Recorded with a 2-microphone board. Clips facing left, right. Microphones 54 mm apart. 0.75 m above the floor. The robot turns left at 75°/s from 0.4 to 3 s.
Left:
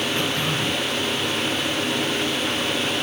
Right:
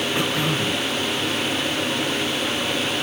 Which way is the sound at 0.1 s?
170° right.